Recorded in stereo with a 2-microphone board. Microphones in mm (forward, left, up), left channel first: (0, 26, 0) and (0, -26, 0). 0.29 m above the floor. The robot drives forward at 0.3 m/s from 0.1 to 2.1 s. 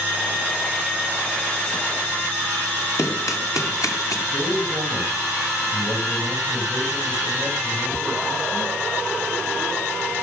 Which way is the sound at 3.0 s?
70° left (ahead or behind).